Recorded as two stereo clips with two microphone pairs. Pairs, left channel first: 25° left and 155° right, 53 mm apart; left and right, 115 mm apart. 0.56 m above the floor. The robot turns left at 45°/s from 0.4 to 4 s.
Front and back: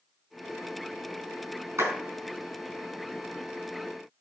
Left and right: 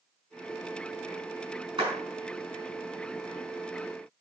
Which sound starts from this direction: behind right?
A clap, at 1.8 s.